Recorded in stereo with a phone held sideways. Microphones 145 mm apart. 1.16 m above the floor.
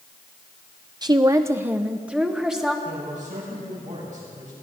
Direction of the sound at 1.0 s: 30° right (ahead or behind).